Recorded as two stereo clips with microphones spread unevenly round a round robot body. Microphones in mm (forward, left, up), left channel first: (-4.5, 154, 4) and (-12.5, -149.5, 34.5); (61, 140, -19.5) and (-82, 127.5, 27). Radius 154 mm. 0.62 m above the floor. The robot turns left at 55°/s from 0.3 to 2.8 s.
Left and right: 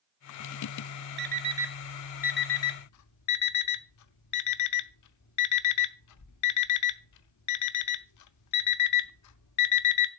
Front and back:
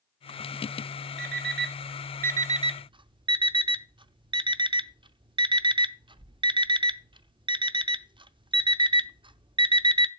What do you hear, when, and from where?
1.2 s an alarm clock: 150° right, 0.8 m; by 10.1 s 120° left, 0.8 m